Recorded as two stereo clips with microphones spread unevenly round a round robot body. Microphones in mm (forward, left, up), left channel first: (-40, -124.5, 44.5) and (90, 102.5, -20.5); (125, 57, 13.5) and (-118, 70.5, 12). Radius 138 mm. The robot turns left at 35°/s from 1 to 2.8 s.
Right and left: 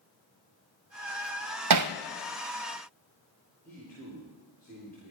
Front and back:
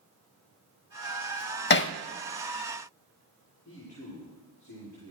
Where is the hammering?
50° left, 0.6 m; by 1.9 s 40° left, 0.6 m.